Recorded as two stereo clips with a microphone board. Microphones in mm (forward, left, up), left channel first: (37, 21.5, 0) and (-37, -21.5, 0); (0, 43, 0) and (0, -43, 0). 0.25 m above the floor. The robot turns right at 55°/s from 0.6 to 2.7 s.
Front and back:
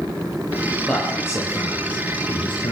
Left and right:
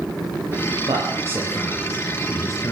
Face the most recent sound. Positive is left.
turn(degrees=45)